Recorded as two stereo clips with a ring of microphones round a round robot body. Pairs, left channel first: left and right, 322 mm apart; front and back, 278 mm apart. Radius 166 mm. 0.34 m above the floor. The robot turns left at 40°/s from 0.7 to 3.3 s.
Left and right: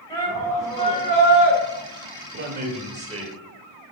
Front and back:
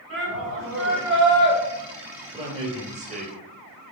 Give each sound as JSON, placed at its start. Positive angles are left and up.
{"t": 0.1, "sound": "a shout", "azimuth_deg": 165, "distance_m": 2.5}
{"t": 2.3, "sound": "a man speaking", "azimuth_deg": -115, "distance_m": 1.0}